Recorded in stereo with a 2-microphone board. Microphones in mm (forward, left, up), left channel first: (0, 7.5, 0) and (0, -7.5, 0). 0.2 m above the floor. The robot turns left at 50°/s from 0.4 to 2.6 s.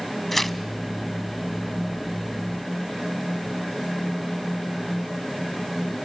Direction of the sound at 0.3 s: 15° left (ahead or behind).